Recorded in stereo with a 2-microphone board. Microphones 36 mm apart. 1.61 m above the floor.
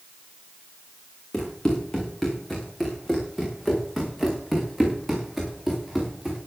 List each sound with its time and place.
1.3 s running footsteps: 15° left (ahead or behind), 7 m; by 6.4 s 5° right (ahead or behind), 8.5 m